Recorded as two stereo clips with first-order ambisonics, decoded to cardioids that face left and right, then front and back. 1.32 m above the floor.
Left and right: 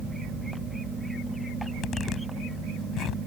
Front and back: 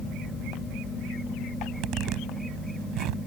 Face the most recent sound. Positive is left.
turn(degrees=145)